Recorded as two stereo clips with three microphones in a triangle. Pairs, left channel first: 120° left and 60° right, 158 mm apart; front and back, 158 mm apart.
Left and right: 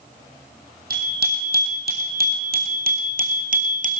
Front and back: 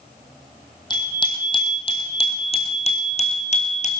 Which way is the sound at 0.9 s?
60° right.